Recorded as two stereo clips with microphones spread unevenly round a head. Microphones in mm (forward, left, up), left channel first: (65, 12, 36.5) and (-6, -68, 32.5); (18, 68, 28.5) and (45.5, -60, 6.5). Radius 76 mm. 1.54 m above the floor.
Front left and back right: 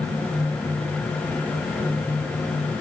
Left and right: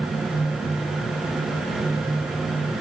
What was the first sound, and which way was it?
Only background noise.